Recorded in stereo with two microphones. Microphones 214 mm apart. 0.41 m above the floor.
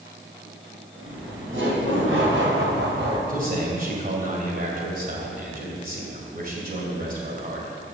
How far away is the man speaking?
About 2.5 m.